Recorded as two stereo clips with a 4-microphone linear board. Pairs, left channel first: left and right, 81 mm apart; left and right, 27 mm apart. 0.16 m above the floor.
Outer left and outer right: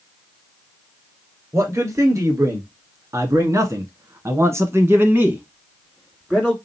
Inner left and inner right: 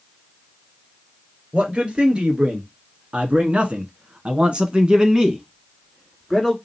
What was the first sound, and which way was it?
A man speaking, 40° right (ahead or behind).